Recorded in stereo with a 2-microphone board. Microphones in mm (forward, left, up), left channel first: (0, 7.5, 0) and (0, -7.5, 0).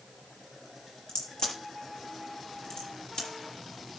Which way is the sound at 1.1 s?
60° left (ahead or behind).